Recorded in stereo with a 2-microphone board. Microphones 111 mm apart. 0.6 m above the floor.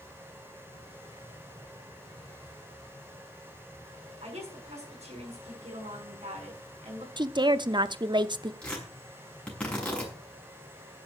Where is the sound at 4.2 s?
80° right, 6 m.